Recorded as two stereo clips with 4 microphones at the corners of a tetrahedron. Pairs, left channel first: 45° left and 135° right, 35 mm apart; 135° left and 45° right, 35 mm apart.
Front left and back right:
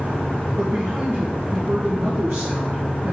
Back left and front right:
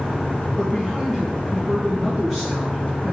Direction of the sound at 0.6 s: 130° right.